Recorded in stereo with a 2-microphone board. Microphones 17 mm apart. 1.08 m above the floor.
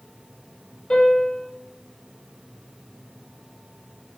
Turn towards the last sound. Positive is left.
turn(degrees=55)  # may be behind; listen again after turning